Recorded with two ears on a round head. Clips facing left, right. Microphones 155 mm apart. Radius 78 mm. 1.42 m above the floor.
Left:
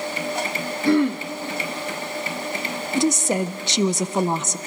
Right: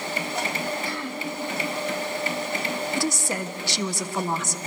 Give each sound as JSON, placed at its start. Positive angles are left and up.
{"t": 0.8, "sound": "throat clearing", "side_deg": 50, "distance_m": 1.2}
{"t": 3.0, "sound": "a woman speaking", "side_deg": 20, "distance_m": 0.6}